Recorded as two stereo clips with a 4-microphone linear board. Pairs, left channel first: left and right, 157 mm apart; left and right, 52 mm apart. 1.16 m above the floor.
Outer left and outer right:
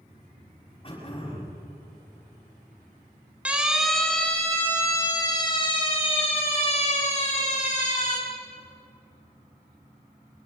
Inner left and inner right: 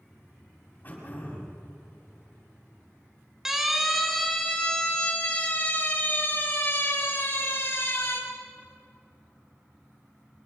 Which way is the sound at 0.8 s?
35° left (ahead or behind).